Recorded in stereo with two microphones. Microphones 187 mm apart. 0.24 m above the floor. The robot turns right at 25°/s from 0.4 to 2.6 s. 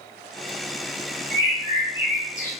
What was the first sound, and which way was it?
A bird, 20° left (ahead or behind).